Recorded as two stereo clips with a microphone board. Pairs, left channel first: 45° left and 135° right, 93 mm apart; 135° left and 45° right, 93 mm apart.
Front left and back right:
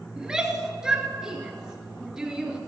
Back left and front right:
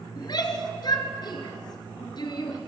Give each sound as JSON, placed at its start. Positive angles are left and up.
{"t": 0.2, "sound": "a shout", "azimuth_deg": 145, "distance_m": 2.0}